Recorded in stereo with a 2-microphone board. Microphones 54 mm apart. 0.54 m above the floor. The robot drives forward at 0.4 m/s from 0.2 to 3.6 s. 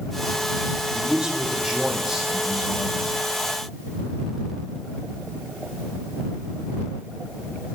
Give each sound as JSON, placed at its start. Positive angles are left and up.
{"t": 0.9, "sound": "a man speaking", "side_deg": -15, "distance_m": 2.0}